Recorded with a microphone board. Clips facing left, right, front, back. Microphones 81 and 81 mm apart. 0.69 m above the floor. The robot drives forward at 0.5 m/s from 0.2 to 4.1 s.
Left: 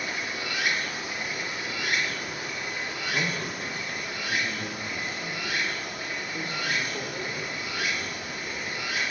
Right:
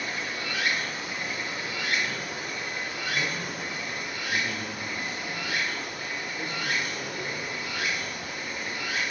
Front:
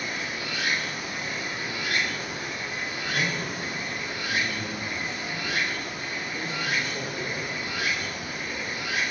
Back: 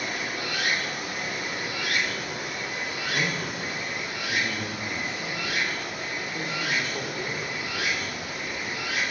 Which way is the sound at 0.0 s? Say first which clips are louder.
Even, back 1 dB; 165° left.